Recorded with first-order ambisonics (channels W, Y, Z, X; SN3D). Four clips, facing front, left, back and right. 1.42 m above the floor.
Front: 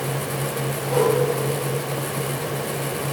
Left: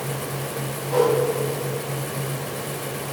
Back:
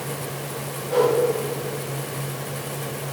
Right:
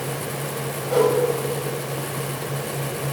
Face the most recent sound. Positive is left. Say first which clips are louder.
# right 1 dB, back 1 dB
turn(degrees=-90)